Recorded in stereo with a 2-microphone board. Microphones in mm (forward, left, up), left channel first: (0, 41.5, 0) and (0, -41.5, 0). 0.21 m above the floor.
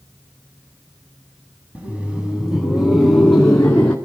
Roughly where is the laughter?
Centre.